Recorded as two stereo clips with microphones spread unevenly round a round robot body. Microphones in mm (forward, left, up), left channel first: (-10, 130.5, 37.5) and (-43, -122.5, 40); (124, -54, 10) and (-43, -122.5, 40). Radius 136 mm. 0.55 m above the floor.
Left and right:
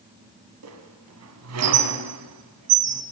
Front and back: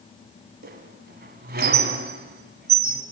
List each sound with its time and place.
0.6 s a squeak: 125° right, 2.5 m